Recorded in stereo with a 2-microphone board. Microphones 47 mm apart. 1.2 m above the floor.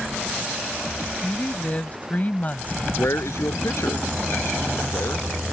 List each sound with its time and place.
1.2 s a woman speaking: 30° left (ahead or behind); by 2.9 s 35° left (ahead or behind)
3.0 s a man speaking: 80° left